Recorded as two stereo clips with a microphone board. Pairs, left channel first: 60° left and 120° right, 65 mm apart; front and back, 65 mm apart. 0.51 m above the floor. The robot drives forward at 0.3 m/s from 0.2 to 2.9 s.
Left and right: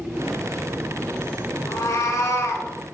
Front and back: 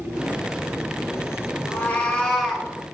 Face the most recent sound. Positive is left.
turn(degrees=105)